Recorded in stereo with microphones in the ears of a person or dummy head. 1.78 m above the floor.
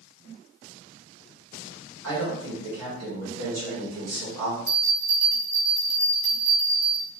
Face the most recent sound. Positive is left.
turn(degrees=-60)  # may be behind; listen again after turning